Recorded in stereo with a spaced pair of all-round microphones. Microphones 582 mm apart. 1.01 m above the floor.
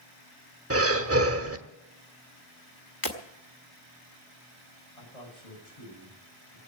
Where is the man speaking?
80° left, 7.5 m.